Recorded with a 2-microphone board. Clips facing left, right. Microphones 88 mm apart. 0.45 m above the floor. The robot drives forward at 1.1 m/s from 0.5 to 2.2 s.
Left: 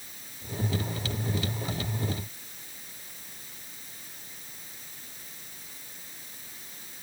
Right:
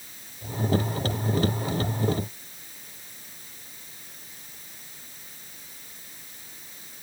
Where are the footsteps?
I don't hear footsteps.